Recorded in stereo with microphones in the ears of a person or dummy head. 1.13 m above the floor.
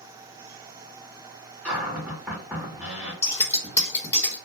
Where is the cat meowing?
No cat meowing in this recording.